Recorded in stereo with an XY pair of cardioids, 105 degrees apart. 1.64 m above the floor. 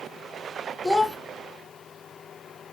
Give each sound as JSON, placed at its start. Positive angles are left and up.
{"t": 0.8, "sound": "a child speaking", "azimuth_deg": 5, "distance_m": 1.3}